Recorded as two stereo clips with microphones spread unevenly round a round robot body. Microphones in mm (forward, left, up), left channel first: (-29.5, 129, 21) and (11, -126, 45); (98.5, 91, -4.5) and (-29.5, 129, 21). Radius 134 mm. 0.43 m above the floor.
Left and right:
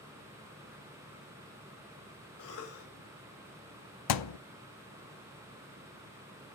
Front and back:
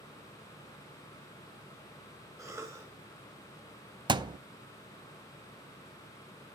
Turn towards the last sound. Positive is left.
turn(degrees=105)